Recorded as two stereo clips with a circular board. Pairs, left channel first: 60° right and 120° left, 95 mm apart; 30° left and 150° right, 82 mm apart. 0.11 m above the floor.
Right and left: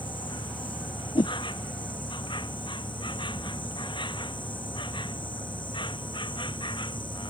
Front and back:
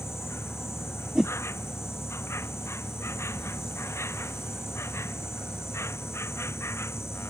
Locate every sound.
0.0 s an insect: 30° right
1.1 s a whoosh: 70° right